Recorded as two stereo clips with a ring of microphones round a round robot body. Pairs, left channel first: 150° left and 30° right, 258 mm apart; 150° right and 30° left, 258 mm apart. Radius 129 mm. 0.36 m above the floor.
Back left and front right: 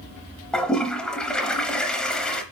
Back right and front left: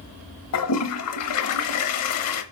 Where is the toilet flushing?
125° right, 0.8 m.